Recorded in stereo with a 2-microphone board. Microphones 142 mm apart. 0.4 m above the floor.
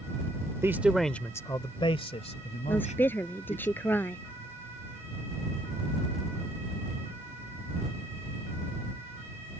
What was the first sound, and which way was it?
A man speaking, 20° right (ahead or behind).